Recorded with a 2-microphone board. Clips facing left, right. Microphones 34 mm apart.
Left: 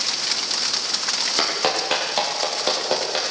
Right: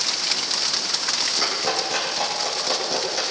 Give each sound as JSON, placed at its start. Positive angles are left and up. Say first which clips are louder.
{"t": 1.4, "sound": "a clap", "louder": "left 2 dB", "side_deg": 55, "distance_m": 8.0}